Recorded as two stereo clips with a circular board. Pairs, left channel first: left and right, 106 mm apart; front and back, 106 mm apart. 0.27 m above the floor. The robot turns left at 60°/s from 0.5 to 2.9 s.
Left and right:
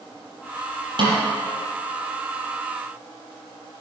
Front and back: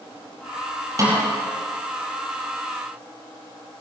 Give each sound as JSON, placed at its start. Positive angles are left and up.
{"t": 1.0, "sound": "a snare drum", "azimuth_deg": -125, "distance_m": 5.0}